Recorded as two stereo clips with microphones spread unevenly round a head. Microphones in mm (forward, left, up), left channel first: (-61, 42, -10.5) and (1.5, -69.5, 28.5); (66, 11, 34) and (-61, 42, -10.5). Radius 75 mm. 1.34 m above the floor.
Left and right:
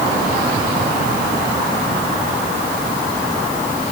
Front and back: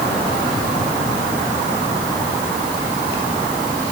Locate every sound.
Only background noise.